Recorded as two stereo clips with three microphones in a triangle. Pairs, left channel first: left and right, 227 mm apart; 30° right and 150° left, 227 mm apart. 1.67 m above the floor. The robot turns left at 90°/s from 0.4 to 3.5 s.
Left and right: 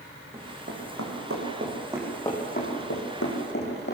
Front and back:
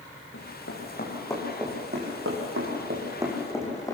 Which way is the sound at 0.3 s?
20° right.